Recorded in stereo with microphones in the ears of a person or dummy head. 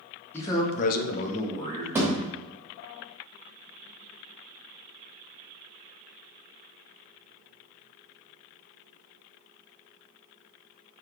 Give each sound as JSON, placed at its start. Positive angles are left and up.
{"t": 0.3, "sound": "a man speaking", "side_deg": 20, "distance_m": 1.0}
{"t": 1.9, "sound": "a thud", "side_deg": -20, "distance_m": 1.2}